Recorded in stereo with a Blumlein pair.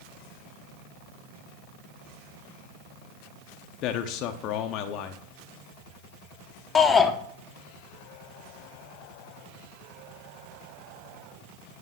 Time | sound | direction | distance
3.8 | a man speaking | 35° left | 0.7 m
6.8 | a shout | 15° left | 0.8 m